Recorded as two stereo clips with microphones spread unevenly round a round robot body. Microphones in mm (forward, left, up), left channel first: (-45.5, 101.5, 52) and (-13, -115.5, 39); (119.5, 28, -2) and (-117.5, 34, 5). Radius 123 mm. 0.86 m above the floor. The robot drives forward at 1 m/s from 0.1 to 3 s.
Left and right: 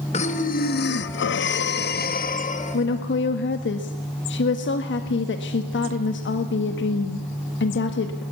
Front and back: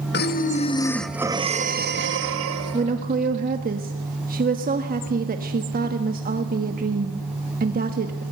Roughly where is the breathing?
Ahead left.